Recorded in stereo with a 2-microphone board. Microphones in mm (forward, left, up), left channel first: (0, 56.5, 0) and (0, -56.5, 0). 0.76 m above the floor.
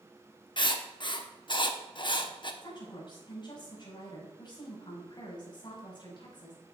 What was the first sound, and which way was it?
Writing, 45° left (ahead or behind).